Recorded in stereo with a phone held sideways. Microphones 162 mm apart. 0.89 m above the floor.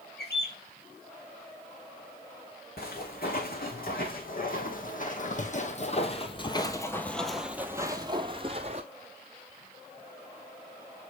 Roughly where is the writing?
No writing in this recording.